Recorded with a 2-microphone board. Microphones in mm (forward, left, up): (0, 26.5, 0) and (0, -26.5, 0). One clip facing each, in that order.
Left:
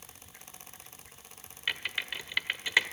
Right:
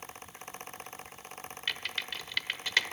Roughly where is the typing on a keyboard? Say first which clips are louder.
Left 2 dB; centre.